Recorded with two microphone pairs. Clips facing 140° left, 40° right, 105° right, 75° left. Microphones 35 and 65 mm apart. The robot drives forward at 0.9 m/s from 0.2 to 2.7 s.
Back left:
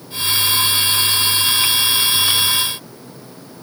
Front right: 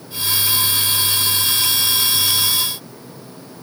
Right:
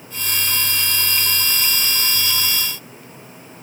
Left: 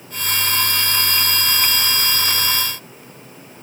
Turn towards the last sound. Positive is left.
No sound to turn to.